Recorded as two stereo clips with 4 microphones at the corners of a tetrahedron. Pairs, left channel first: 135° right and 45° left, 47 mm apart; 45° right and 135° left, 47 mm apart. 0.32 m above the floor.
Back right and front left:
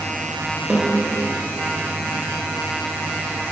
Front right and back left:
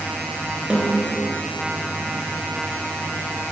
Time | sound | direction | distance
0.7 | a snare drum | 95° left | 0.5 m